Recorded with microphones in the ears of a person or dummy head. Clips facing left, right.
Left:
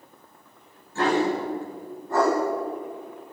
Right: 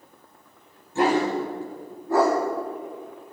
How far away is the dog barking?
About 3 m.